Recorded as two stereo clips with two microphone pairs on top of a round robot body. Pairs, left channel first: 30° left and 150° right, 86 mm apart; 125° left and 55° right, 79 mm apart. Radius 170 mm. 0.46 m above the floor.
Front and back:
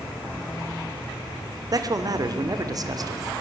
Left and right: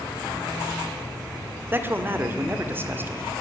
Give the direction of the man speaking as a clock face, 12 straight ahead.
4 o'clock.